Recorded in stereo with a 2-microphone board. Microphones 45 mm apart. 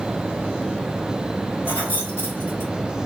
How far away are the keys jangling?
About 4 m.